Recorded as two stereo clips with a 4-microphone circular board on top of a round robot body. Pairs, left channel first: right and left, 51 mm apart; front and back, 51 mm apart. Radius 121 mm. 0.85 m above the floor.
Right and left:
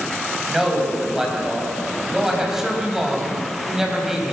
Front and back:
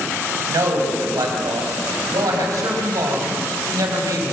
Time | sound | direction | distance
0.5 | a man speaking | 175° left | 5.5 m